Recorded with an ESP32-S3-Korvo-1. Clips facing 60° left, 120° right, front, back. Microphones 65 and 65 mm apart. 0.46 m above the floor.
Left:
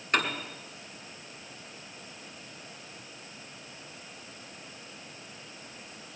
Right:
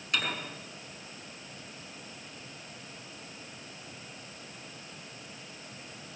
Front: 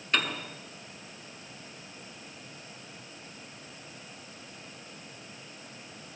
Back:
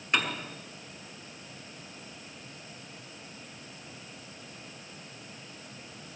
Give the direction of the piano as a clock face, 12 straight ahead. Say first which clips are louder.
Left 4 dB, even; 8 o'clock.